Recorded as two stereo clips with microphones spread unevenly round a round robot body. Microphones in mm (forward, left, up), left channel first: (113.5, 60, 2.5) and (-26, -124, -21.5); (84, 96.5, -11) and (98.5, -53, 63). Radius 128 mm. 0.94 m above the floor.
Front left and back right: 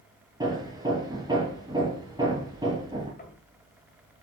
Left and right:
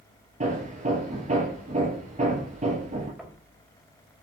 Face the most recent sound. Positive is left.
turn(degrees=0)